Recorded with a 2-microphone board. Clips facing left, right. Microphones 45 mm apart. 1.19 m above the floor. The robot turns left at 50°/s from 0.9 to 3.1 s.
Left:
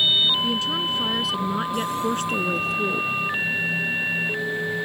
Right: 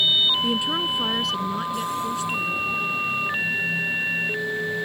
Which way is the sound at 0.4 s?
165° right.